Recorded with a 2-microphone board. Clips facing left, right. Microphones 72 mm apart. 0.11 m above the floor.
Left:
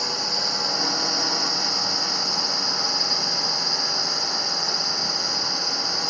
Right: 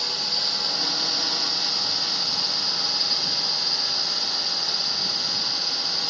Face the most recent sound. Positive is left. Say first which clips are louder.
# left 4 dB
turn(degrees=20)  # may be behind; listen again after turning